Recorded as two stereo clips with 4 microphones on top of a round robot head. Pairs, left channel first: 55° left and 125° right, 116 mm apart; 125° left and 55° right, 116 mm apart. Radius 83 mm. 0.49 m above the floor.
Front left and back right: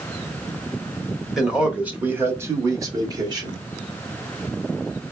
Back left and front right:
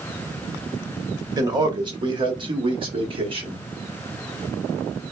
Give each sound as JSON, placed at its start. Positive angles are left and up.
{"t": 1.4, "sound": "a man speaking", "azimuth_deg": -40, "distance_m": 1.4}